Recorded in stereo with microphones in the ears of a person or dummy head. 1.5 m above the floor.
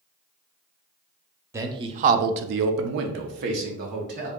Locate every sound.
1.5 s a man speaking: 20° right (ahead or behind), 0.6 m; by 4.3 s 50° right (ahead or behind), 1.2 m